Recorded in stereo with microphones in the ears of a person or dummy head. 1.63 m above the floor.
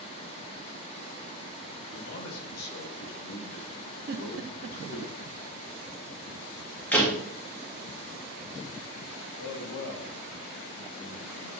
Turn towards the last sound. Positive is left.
turn(degrees=85)